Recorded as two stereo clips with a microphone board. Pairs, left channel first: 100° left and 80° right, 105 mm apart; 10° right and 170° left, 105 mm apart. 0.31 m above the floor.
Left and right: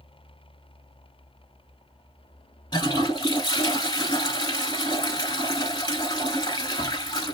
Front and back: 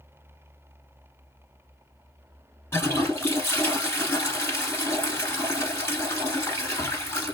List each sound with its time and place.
2.7 s a toilet flushing: 55° left, 1.1 m